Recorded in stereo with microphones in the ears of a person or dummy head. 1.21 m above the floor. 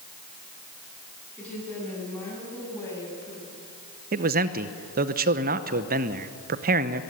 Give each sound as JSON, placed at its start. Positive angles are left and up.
{"t": 1.4, "sound": "a woman speaking", "side_deg": 5, "distance_m": 9.0}
{"t": 4.1, "sound": "a man speaking", "side_deg": -45, "distance_m": 0.8}